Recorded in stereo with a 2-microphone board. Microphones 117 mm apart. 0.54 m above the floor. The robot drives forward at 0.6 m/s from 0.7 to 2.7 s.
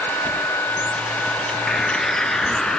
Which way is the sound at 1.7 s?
5° left (ahead or behind).